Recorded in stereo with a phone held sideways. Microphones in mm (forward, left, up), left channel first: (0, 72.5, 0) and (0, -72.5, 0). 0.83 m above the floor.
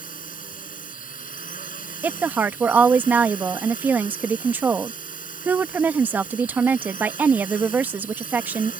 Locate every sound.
0.0 s a drone: 70° left (ahead or behind)
2.0 s a woman speaking: 10° right (ahead or behind)